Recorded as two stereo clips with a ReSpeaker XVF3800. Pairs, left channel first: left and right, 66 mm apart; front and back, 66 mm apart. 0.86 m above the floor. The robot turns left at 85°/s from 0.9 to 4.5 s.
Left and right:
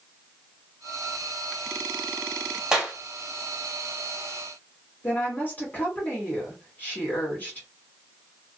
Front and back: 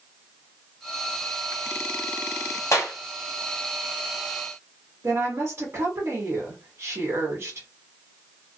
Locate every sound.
2.7 s a clap: 15° right, 0.8 m; by 3.0 s 35° right, 0.8 m
5.0 s a woman speaking: 145° left, 1.3 m